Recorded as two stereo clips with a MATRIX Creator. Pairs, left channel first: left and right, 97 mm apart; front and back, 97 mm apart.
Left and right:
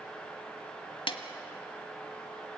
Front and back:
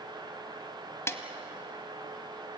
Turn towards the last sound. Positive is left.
turn(degrees=60)